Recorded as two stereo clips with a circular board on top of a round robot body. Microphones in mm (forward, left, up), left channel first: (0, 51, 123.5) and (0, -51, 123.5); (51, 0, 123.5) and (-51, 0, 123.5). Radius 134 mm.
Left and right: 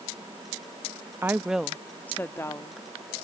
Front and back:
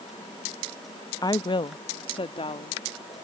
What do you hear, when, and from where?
1.2 s a woman speaking: 30° right; by 2.8 s 30° left